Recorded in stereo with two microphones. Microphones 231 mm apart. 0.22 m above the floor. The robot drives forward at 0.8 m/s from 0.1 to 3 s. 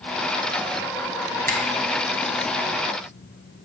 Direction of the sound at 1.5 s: 40° right (ahead or behind).